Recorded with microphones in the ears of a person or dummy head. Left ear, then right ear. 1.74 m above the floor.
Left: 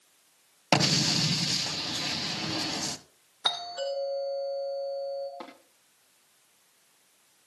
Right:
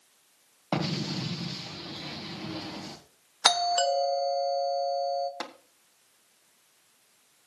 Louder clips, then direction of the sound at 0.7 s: Left 8 dB; 65° left (ahead or behind).